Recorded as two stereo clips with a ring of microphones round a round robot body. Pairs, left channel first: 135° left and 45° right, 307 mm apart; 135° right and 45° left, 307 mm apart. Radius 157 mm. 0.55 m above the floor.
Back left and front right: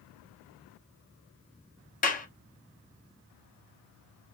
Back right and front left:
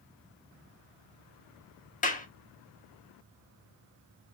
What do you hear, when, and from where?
2.0 s a clap: straight behind, 0.6 m